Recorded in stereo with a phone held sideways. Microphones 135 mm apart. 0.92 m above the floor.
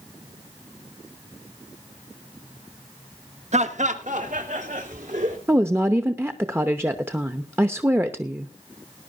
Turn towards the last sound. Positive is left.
turn(degrees=-20)  # may be behind; listen again after turning